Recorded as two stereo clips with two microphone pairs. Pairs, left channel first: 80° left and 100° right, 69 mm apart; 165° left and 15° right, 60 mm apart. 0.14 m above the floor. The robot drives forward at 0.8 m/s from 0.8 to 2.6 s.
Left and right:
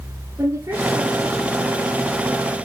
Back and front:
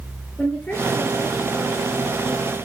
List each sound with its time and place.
0.4 s a woman speaking: 135° right, 3.5 m; by 2.6 s 150° right, 4.5 m